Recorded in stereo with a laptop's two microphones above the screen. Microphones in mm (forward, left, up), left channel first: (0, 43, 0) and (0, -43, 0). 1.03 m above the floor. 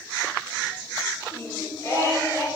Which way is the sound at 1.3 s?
30° left (ahead or behind).